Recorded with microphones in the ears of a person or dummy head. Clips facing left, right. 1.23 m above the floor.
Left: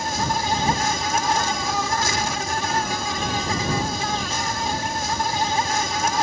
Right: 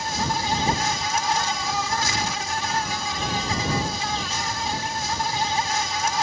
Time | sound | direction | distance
0.0 | an insect | 55° left (ahead or behind) | ?